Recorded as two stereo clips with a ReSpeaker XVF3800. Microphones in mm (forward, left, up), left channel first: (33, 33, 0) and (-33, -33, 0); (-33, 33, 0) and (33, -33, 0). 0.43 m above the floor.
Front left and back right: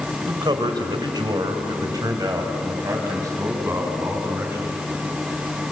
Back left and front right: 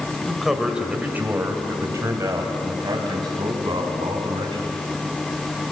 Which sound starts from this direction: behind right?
A man speaking, at 0.3 s.